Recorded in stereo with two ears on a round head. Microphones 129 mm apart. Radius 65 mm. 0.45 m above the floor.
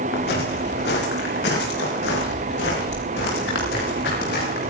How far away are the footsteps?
About 6 m.